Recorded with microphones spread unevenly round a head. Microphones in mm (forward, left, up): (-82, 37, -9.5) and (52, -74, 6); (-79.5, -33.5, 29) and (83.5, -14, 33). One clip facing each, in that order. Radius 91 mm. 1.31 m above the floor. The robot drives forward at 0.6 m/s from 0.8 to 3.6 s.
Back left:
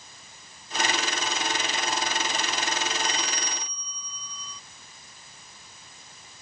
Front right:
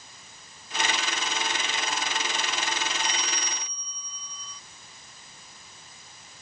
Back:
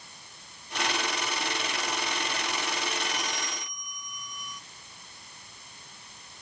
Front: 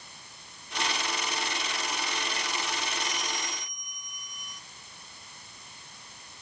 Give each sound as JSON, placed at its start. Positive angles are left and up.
{"t": 3.0, "sound": "a bell", "azimuth_deg": 160}